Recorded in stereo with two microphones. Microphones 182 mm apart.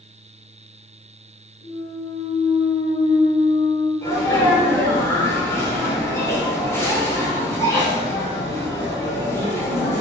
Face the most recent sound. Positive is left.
turn(degrees=15)  # may be behind; listen again after turning